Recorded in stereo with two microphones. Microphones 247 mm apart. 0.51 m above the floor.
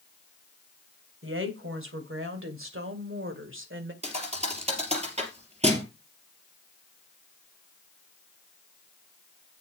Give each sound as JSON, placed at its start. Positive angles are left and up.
{"t": 1.2, "sound": "a woman speaking", "side_deg": -60, "distance_m": 3.0}
{"t": 4.0, "sound": "a thud", "side_deg": -30, "distance_m": 3.0}